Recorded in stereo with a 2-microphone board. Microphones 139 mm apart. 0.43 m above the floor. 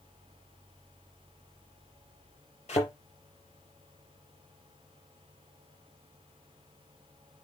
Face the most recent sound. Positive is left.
turn(degrees=50)  # may be behind; listen again after turning